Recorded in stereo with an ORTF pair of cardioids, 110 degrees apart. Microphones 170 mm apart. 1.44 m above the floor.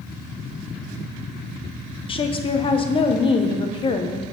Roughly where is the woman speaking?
Ahead left.